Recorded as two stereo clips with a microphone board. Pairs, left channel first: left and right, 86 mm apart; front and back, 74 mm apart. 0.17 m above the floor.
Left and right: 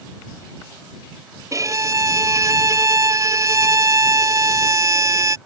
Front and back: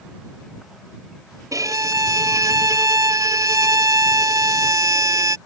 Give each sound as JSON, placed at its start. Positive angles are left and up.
{"t": 1.5, "sound": "a violin", "azimuth_deg": -140}